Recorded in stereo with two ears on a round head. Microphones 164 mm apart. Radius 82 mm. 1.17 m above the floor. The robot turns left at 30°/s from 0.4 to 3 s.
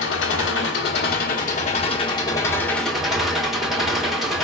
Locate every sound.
0.0 s an engine running: 75° left, 1.2 m; by 4.5 s straight ahead, 1.2 m